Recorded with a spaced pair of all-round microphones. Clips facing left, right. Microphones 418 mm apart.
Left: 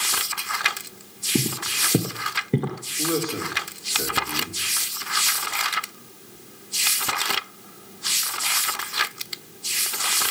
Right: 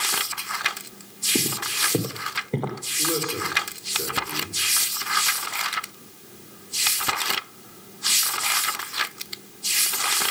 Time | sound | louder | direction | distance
1.4 | footsteps | left 2 dB | 30° left (ahead or behind) | 1.7 m
3.0 | a man speaking | left 3 dB | 75° left (ahead or behind) | 4.5 m